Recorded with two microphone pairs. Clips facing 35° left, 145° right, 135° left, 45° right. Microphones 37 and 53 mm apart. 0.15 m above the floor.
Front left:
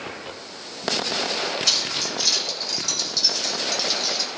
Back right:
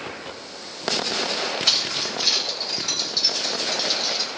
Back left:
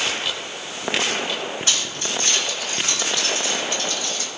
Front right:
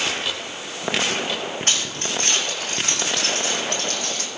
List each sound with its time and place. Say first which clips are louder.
1.7 s keys jangling: back right 1 dB, even; 80° right, 6.5 m; by 4.3 s 65° right, 5 m